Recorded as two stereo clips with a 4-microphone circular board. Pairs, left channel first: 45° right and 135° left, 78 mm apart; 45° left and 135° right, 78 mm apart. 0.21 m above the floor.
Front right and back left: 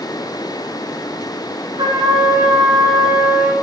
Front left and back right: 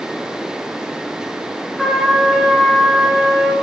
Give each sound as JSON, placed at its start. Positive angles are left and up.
{"t": 1.8, "sound": "a trumpet", "azimuth_deg": 135, "distance_m": 2.0}